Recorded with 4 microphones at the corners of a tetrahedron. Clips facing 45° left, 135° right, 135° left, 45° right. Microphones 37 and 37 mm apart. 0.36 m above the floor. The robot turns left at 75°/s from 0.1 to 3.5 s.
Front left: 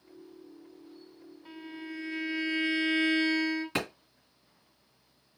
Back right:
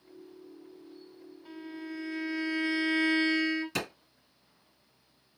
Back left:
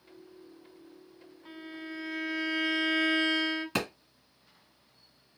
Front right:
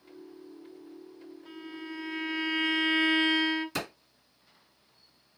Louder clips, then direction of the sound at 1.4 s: Back right 1 dB, even; 105° left.